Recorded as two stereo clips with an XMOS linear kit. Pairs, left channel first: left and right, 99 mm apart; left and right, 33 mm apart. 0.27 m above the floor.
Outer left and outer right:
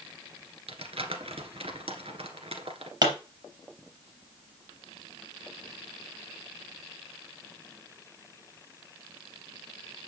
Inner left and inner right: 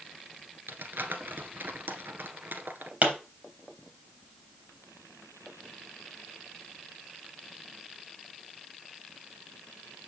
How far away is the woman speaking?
I don't hear a woman speaking.